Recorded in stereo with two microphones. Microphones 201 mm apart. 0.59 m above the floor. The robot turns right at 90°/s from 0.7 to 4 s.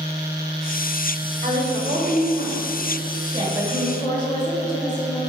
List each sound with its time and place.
1.4 s a woman speaking: 130° right, 1.6 m; by 2.6 s 25° right, 1.6 m
3.3 s a woman speaking: 35° right, 2 m; by 5.2 s 25° left, 2 m